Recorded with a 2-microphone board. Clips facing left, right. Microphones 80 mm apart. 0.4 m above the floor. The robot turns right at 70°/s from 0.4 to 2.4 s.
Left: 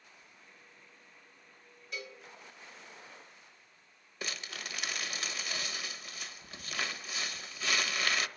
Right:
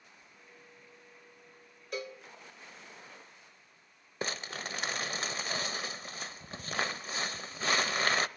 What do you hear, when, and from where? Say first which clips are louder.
0.2 s a sliding door: right 1 dB; 10° right (ahead or behind), 2 m
1.9 s a cowbell: right 5 dB; 45° right (ahead or behind), 1.3 m; by 2.2 s 40° right (ahead or behind), 1.3 m
4.2 s crumpling: right 5 dB; 35° right (ahead or behind), 0.7 m